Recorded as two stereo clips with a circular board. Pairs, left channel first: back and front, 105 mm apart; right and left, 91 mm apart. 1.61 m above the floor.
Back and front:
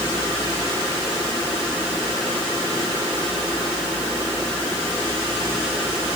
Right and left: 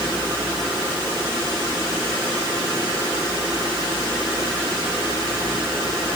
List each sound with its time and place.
Only background noise.